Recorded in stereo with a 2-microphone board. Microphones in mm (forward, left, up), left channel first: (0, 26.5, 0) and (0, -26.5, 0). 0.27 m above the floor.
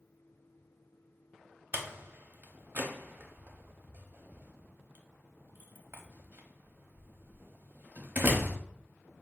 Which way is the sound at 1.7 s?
40° right (ahead or behind).